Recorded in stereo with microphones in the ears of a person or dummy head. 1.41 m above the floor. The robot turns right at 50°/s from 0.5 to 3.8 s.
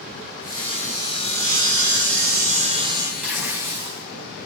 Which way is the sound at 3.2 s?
10° right (ahead or behind).